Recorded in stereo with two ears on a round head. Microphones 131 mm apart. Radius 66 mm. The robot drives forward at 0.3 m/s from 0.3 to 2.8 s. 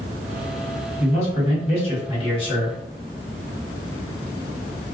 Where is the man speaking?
45° left (ahead or behind), 1.2 m; by 2.8 s 35° left (ahead or behind), 1.5 m.